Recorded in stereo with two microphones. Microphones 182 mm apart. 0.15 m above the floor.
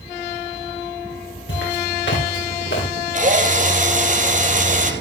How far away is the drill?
About 3.5 m.